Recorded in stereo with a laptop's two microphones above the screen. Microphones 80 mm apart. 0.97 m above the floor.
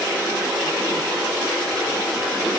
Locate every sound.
Only background noise.